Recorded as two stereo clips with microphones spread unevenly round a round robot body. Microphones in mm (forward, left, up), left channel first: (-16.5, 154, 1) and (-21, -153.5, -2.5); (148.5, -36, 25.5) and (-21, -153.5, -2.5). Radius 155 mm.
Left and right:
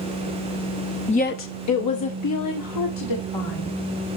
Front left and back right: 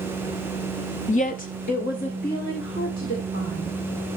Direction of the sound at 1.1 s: 40° left.